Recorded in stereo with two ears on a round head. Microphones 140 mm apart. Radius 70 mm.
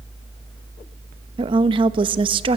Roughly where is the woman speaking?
Right.